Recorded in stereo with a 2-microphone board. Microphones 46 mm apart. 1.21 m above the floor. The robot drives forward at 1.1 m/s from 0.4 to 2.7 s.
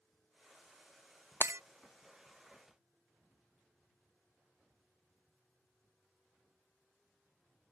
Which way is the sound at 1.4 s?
60° right (ahead or behind).